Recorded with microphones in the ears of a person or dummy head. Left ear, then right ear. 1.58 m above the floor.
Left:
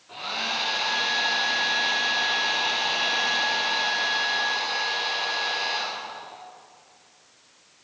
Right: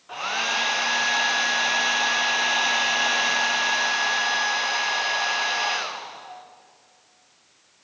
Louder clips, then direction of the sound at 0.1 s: Right 3 dB; 45° right (ahead or behind).